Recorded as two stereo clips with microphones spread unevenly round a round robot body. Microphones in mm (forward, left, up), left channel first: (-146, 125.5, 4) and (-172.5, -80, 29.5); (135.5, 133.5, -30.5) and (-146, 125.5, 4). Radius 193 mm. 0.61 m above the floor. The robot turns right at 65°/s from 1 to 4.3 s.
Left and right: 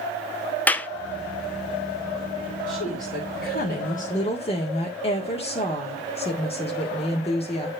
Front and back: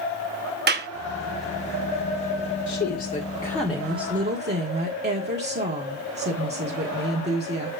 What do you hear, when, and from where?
0.7 s a clap: 150° left, 0.7 m
2.7 s a woman speaking: 25° left, 1.7 m; by 7.7 s 130° left, 1.7 m